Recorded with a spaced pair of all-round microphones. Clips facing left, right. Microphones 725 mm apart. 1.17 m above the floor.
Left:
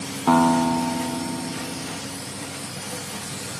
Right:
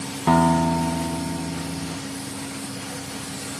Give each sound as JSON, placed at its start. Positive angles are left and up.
{"t": 0.3, "sound": "a guitar", "side_deg": -50}